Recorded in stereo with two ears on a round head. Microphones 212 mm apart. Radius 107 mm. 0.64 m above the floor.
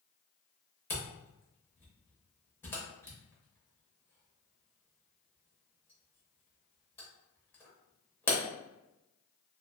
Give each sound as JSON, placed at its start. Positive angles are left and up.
{"t": 0.9, "sound": "a camera shutter", "side_deg": 10, "distance_m": 0.9}